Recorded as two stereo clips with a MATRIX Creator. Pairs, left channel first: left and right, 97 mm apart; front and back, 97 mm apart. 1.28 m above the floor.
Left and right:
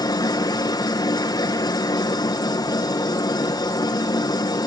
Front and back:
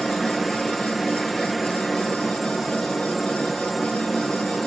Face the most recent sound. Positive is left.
turn(degrees=90)